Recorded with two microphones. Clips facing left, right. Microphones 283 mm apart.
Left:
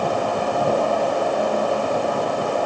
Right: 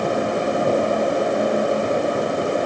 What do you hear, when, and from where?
Only background noise.